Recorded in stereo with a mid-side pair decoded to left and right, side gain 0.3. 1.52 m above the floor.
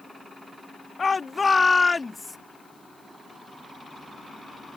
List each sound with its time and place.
1.0 s a shout: 40° left; by 2.4 s 25° left